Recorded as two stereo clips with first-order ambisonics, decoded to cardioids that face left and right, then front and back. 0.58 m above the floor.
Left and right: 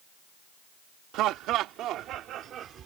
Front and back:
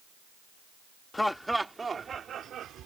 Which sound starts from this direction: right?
Laughter, at 1.1 s.